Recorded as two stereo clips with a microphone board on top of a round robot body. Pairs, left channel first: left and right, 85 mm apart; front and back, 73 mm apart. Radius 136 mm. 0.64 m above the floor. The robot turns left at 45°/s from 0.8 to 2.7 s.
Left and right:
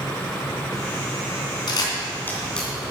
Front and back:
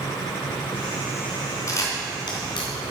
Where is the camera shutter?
50° left, 3 m; by 2.7 s 5° left, 3 m.